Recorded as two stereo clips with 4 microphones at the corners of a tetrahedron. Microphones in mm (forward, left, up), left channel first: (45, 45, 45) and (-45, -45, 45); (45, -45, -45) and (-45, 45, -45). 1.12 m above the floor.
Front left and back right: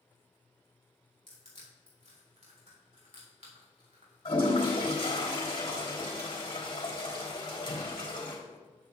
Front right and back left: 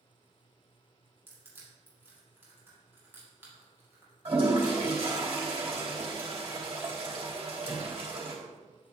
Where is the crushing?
155° right, 3.5 m.